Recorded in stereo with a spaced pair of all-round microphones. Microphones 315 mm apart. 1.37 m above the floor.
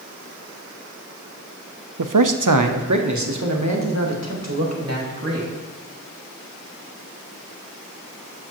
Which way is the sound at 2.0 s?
75° right (ahead or behind).